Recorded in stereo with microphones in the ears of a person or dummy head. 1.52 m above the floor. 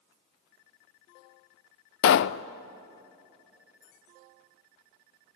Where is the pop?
75° left (ahead or behind), 0.5 m.